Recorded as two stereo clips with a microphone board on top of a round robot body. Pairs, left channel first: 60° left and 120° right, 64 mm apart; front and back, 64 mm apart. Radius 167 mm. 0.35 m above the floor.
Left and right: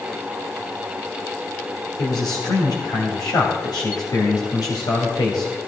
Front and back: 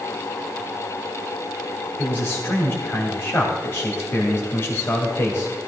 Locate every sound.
2.0 s a man speaking: 55° left, 2.5 m